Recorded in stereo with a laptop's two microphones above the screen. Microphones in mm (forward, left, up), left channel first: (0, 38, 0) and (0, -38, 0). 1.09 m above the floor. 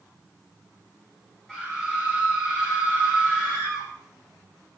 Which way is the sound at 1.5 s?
5° left (ahead or behind).